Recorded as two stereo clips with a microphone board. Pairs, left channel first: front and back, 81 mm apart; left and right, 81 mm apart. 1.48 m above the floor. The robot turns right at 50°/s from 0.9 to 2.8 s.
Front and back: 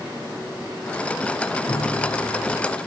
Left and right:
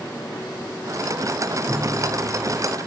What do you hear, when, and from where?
1.7 s a piano: 40° right, 2.5 m; by 2.8 s 15° left, 2.5 m